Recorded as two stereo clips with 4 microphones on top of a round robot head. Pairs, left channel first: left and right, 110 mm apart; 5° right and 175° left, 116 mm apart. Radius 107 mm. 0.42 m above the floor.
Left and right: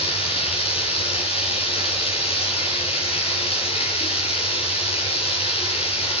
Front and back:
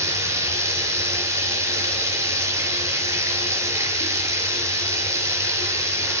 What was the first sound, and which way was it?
Running water, 110° left.